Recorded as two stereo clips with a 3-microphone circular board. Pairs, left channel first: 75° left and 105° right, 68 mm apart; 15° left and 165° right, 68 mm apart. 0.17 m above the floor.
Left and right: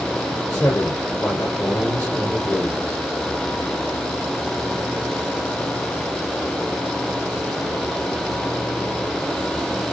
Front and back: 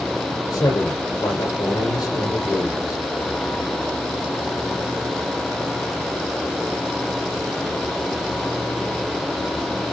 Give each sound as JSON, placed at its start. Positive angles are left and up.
{"t": 0.5, "sound": "a man speaking", "azimuth_deg": 20, "distance_m": 7.0}